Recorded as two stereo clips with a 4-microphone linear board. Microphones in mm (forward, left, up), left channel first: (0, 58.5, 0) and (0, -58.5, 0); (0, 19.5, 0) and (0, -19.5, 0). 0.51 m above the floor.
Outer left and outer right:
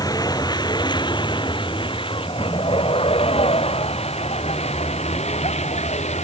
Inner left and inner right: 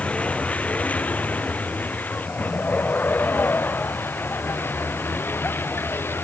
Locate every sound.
0.0 s a vehicle: 30° left (ahead or behind); by 6.2 s 65° left (ahead or behind)